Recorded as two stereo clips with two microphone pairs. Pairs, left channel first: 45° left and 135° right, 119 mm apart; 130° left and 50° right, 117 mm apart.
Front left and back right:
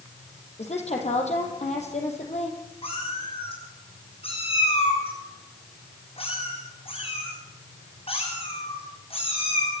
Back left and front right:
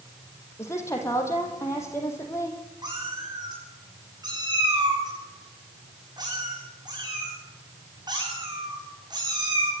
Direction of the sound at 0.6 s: 65° left.